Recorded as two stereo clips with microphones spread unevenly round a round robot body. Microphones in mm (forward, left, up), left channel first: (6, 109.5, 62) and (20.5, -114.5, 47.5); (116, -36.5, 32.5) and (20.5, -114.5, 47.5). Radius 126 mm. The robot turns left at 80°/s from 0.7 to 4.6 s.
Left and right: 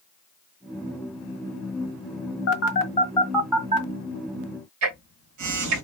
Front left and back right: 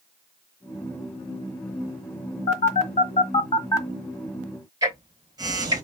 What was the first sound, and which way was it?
A phone buzzing, 80° left.